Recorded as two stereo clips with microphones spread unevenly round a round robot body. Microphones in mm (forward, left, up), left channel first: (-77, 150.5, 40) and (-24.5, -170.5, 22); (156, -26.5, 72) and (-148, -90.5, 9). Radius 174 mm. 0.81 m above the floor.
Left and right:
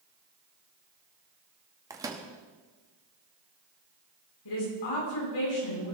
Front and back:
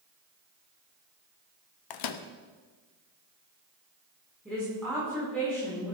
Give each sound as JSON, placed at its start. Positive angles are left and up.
{"t": 1.9, "sound": "a microwave", "azimuth_deg": 0, "distance_m": 1.0}
{"t": 4.5, "sound": "a woman speaking", "azimuth_deg": 105, "distance_m": 9.0}